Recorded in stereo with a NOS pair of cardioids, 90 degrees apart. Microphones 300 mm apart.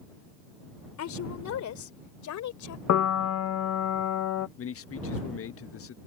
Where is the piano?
55° left.